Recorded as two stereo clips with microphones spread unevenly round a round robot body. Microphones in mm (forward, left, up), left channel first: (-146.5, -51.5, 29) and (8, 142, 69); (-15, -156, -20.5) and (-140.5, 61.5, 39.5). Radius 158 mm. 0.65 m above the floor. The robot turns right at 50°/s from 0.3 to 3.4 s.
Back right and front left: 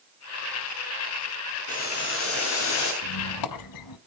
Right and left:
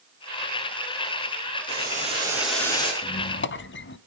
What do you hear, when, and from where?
1.7 s boiling: 170° left, 8.5 m; by 2.9 s 130° right, 8.5 m
3.0 s a squeak: 130° right, 1.0 m; by 4.0 s 110° right, 1.0 m